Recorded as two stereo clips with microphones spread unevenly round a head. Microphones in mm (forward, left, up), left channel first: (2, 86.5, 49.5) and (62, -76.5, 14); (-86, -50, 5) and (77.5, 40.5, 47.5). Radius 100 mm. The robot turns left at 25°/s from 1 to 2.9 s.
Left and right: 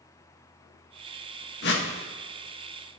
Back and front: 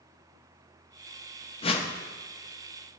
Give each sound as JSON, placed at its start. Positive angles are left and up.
{"t": 1.6, "sound": "a whoosh", "azimuth_deg": 145, "distance_m": 1.4}